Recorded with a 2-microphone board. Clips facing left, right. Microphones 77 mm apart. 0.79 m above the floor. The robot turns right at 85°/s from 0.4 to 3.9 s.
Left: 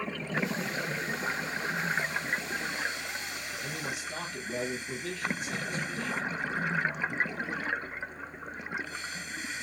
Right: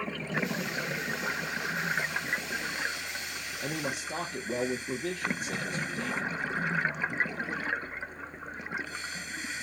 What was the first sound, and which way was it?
A man speaking, 65° right (ahead or behind).